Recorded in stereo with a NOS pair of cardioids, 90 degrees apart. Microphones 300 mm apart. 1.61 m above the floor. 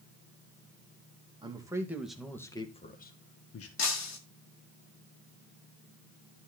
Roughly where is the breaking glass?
Ahead left.